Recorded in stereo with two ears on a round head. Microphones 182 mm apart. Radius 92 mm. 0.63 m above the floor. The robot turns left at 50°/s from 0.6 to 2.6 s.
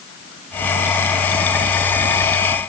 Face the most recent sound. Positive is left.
No sound to turn to.